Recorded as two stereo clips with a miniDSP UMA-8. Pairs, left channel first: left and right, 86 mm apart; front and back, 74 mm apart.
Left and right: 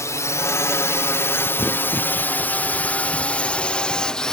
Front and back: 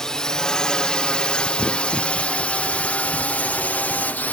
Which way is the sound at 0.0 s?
80° left.